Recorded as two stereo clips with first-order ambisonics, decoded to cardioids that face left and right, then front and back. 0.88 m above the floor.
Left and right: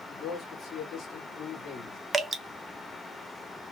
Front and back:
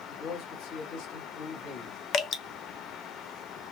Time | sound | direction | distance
0.1 | a man speaking | 25° left | 1.7 m
2.1 | dripping | 20° right | 0.5 m